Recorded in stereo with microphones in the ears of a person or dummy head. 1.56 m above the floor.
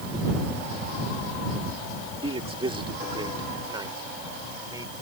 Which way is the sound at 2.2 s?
30° right (ahead or behind).